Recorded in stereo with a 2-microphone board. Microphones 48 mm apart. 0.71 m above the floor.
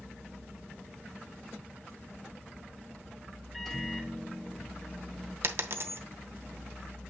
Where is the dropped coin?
55° right (ahead or behind), 0.8 m.